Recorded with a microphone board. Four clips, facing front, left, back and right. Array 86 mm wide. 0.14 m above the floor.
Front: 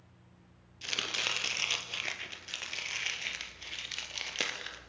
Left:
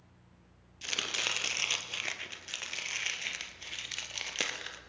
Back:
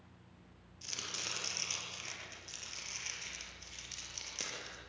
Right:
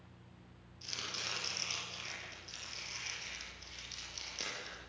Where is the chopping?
45° left, 2.5 m.